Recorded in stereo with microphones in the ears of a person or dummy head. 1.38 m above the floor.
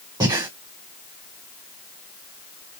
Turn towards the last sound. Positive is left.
turn(degrees=-25)  # may be behind; listen again after turning